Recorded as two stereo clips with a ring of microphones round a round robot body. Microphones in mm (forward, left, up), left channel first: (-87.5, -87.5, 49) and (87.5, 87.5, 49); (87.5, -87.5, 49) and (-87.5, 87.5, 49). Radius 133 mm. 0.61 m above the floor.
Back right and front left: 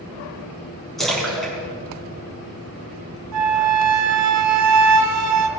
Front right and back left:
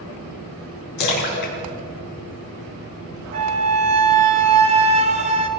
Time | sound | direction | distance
1.0 | a splash | 45° right | 4.5 m
3.3 | a flute | 70° left | 1.2 m